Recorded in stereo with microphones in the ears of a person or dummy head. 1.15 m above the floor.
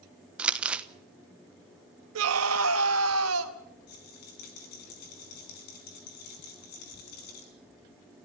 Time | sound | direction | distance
0.4 | crumpling | 5° right (ahead or behind) | 1.2 m
2.1 | a scream | 80° right | 1.4 m
3.9 | a rattle | 55° left (ahead or behind) | 4 m